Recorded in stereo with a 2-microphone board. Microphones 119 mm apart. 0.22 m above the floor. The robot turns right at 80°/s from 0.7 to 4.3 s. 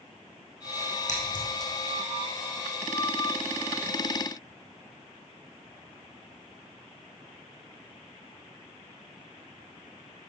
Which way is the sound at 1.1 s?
70° left (ahead or behind).